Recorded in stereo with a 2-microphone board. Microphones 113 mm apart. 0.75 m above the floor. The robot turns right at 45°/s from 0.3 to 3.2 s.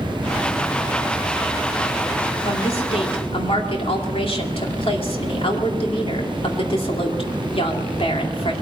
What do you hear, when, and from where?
2.5 s a woman speaking: 75° left, 2 m; by 8.5 s 105° left, 2 m